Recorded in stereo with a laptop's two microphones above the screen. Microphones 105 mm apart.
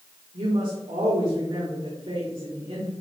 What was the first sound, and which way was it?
A woman speaking, 80° right.